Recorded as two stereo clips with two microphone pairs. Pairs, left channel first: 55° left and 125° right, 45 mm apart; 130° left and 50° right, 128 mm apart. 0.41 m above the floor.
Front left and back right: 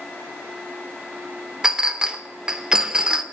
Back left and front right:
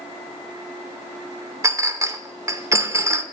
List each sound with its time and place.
1.6 s a clink: 85° right, 0.5 m